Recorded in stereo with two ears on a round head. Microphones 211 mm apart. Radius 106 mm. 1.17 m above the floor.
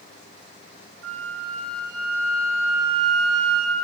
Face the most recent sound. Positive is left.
turn(degrees=-70)  # may be behind; listen again after turning